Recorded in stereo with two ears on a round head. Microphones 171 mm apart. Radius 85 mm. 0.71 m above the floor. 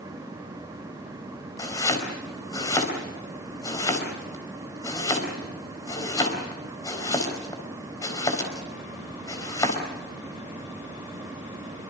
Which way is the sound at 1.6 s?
20° left (ahead or behind).